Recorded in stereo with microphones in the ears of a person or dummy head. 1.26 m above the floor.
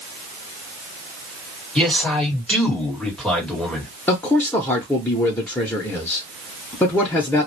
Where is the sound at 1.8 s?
5° left (ahead or behind), 1.3 m.